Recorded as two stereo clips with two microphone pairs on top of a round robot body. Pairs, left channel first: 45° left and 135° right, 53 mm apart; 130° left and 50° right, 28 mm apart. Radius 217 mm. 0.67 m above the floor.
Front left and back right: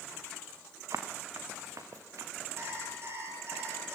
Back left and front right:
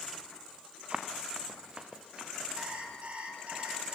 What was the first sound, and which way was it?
Running footsteps, 110° right.